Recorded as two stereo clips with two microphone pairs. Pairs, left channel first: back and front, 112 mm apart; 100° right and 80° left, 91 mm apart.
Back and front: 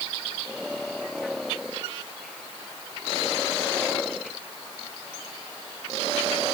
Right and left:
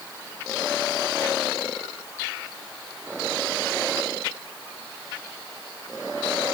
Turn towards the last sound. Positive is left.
No sound to turn to.